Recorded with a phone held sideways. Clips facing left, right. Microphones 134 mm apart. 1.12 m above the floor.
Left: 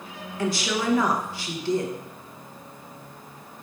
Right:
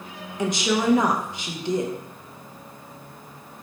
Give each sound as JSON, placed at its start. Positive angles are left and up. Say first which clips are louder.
{"t": 0.4, "sound": "a woman speaking", "louder": "right 3 dB", "side_deg": -20, "distance_m": 0.6}